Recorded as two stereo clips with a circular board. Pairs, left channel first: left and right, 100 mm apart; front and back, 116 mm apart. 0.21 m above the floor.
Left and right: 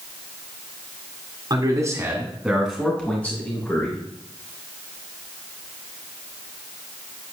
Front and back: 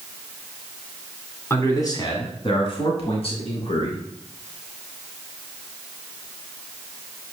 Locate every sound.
1.5 s a man speaking: 60° right, 2 m; by 4.0 s 30° left, 3.5 m